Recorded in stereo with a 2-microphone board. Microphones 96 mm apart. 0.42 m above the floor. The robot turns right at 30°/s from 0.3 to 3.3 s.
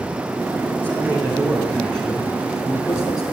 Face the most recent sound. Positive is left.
turn(degrees=45)